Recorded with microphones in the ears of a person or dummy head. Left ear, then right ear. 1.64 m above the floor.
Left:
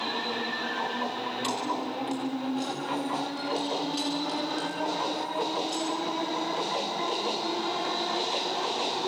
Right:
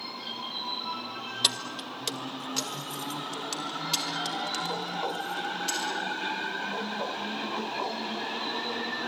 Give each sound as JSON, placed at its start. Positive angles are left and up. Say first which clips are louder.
{"t": 1.4, "sound": "keys jangling", "louder": "right 5 dB", "side_deg": -35, "distance_m": 1.1}